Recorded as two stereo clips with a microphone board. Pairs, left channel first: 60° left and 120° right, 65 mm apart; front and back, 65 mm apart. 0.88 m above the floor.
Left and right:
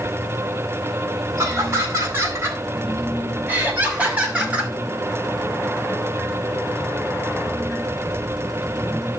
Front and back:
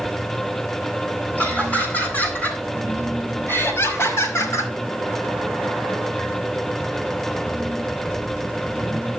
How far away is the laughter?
About 8 m.